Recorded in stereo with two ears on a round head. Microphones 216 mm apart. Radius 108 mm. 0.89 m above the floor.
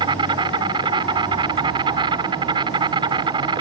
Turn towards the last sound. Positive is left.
turn(degrees=-20)  # may be behind; listen again after turning